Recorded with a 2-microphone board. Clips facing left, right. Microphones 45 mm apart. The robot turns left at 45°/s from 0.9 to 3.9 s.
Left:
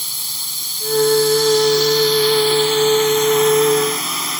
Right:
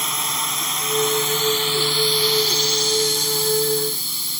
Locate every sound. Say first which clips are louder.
0.0 s a drone: right 7 dB; 120° right; by 4.4 s 105° left